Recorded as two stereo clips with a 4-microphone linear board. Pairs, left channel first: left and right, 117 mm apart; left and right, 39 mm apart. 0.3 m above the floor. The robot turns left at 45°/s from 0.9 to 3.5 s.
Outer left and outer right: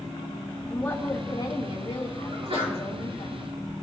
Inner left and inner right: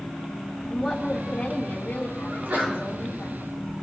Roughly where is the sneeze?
Right.